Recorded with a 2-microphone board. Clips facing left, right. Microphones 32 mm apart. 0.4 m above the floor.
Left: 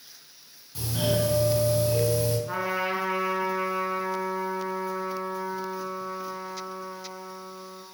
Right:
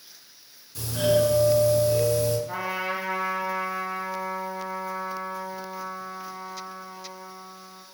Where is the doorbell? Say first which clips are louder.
Right 5 dB; 30° left (ahead or behind), 3.5 m.